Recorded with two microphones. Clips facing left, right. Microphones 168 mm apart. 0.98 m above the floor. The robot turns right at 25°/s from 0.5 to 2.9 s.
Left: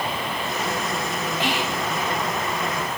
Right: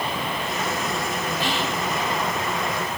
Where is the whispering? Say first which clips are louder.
Left 2 dB; 20° left (ahead or behind), 1.2 m; by 1.8 s 10° left (ahead or behind), 1.2 m.